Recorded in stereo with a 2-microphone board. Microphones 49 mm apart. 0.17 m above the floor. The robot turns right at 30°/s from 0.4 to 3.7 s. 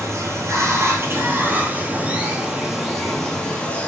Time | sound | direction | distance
0.0 | running water | 75° right | 0.9 m